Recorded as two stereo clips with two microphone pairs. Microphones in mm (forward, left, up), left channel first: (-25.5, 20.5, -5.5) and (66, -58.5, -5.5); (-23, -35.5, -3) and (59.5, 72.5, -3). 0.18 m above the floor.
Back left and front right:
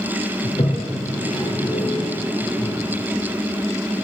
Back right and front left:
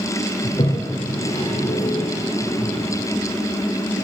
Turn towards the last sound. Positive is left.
turn(degrees=180)